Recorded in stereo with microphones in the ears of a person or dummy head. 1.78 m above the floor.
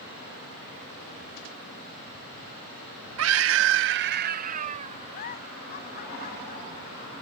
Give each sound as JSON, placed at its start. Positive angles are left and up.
{"t": 3.2, "sound": "a scream", "side_deg": -75}
{"t": 5.1, "sound": "a giggle", "side_deg": 50}